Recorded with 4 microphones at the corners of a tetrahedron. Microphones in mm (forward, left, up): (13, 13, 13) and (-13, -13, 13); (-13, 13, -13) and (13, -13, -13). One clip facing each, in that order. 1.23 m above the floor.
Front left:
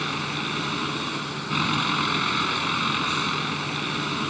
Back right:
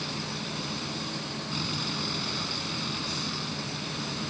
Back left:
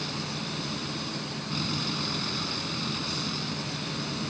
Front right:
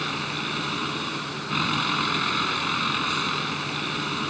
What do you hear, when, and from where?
0.0 s a vehicle: straight ahead